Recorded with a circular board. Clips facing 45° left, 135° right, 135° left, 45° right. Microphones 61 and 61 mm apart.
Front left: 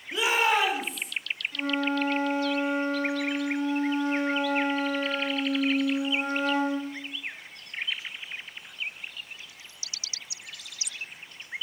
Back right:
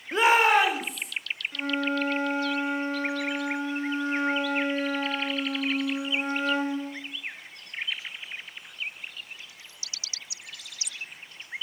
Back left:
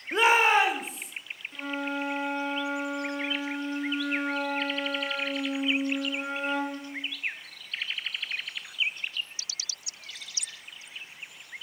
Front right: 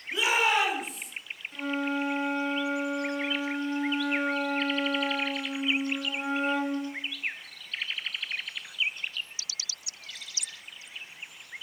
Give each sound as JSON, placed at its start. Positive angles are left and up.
{"t": 0.1, "sound": "a shout", "azimuth_deg": 175, "distance_m": 0.7}
{"t": 1.5, "sound": "a flute", "azimuth_deg": -135, "distance_m": 1.2}